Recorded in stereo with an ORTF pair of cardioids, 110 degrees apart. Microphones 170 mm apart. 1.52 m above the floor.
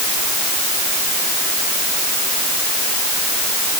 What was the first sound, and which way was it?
Only background noise.